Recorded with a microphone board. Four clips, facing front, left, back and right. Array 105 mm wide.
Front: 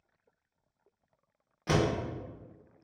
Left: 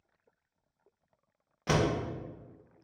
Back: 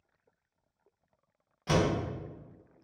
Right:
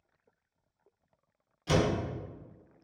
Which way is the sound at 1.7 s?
70° left.